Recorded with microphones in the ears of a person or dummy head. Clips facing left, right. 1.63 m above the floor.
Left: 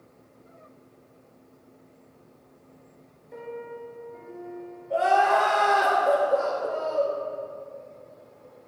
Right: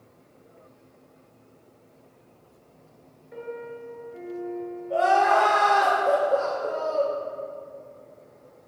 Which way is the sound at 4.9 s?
Centre (ahead or behind).